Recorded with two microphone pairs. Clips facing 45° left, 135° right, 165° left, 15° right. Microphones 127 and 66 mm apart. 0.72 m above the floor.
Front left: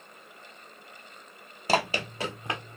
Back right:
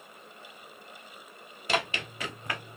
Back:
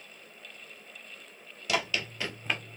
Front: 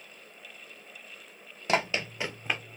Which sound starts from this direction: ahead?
Running footsteps, at 1.7 s.